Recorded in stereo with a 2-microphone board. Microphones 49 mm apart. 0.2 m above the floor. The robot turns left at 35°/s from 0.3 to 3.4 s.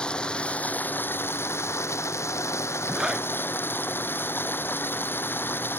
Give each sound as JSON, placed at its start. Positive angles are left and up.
{"t": 0.0, "sound": "running water", "azimuth_deg": 160}
{"t": 2.9, "sound": "a zipper", "side_deg": -5}